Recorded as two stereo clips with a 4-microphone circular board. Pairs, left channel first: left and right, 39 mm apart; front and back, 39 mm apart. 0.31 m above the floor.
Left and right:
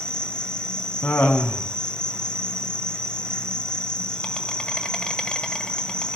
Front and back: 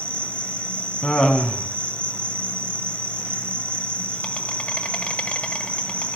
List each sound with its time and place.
0.0 s an insect: 35° left, 1.5 m
1.0 s laughter: 65° left, 2 m